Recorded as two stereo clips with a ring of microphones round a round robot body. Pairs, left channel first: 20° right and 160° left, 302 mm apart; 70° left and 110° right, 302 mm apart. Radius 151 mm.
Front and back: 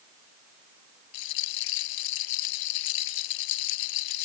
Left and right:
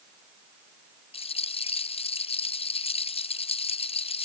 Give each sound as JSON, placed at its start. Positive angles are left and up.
{"t": 1.1, "sound": "a rattle", "azimuth_deg": -5}